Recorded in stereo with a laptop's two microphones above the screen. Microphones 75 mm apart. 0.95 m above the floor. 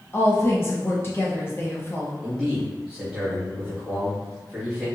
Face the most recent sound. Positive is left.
turn(degrees=0)  # may be behind; listen again after turning